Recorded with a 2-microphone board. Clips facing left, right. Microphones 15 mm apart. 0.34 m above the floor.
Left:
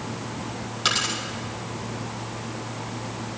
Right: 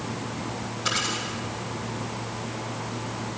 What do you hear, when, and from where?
0.8 s a dropped coin: 65° left (ahead or behind), 6 m